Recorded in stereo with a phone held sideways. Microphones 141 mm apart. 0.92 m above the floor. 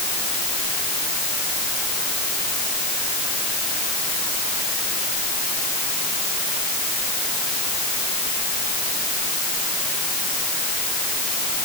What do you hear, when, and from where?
Only background noise.